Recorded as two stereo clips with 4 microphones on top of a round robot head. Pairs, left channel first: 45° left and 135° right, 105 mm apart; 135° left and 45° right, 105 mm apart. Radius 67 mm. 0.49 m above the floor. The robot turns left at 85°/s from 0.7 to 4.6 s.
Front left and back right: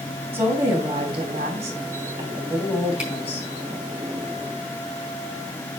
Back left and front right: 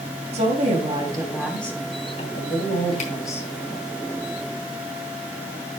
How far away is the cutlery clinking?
No cutlery clinking in this recording.